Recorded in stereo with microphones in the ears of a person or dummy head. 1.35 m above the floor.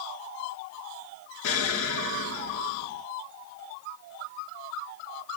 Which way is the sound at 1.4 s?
75° left (ahead or behind).